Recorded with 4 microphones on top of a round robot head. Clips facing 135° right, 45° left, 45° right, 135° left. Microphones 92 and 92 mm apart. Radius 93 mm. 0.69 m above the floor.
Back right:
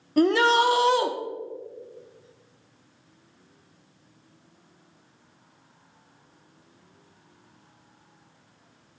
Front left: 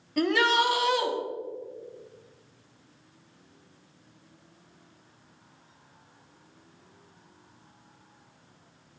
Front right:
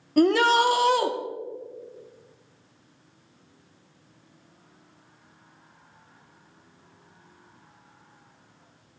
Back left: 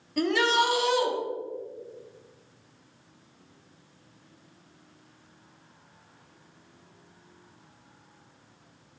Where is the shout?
80° right, 1.4 m.